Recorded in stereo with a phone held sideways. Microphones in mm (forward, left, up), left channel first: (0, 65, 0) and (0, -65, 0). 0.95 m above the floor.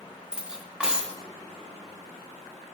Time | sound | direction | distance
0.3 | cutlery clinking | 10° right (ahead or behind) | 0.8 m